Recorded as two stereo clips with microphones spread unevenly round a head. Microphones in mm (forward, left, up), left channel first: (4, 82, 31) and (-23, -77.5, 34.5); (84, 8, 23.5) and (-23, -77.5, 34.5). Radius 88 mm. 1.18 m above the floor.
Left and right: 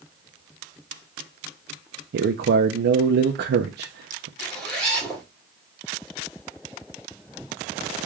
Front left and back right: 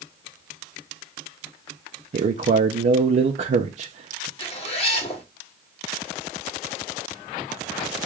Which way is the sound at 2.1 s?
105° right.